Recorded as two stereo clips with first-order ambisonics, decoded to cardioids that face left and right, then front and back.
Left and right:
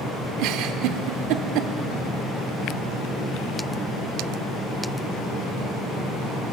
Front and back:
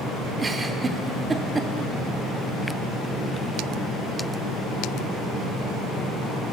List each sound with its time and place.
0.4 s a giggle: 105° right, 0.6 m